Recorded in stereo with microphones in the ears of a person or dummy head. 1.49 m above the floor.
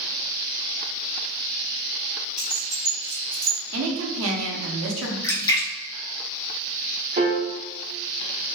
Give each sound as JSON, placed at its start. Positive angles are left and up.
{"t": 2.4, "sound": "keys jangling", "side_deg": 15, "distance_m": 1.1}
{"t": 3.7, "sound": "a woman speaking", "side_deg": -70, "distance_m": 0.7}
{"t": 5.2, "sound": "a splash", "side_deg": 25, "distance_m": 0.8}
{"t": 7.2, "sound": "a piano", "side_deg": -25, "distance_m": 0.9}